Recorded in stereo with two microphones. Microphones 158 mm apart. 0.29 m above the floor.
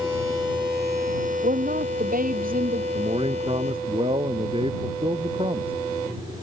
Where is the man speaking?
35° right (ahead or behind).